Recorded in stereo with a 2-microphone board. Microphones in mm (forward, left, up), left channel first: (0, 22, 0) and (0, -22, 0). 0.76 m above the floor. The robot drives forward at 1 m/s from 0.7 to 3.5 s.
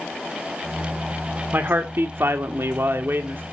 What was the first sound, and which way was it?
A man speaking, 50° right (ahead or behind).